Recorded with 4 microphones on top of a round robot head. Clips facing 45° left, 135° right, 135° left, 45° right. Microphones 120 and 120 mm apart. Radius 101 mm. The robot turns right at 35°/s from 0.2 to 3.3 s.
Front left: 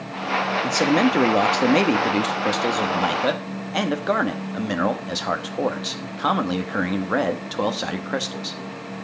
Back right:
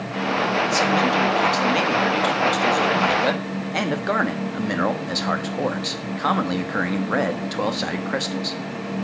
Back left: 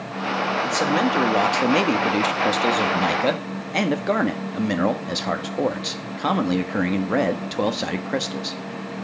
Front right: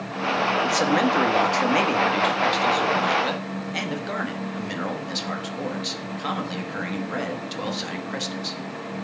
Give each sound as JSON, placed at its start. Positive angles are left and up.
{"t": 0.6, "sound": "a man speaking", "azimuth_deg": 35, "distance_m": 1.3}